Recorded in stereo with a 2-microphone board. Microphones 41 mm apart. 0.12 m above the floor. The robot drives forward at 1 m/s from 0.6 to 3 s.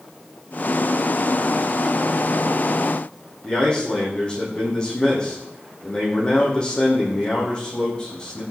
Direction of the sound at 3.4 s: 20° left (ahead or behind).